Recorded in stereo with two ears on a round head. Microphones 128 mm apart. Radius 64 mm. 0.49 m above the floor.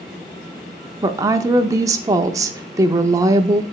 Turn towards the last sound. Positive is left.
turn(degrees=-25)  # may be behind; listen again after turning